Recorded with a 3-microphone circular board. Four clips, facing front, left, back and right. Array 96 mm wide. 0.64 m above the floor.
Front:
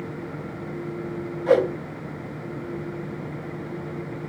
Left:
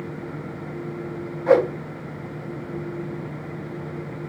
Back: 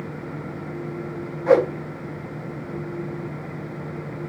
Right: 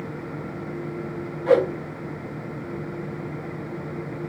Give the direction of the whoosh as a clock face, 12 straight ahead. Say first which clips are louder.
Left 1 dB, back 2 dB; 7 o'clock.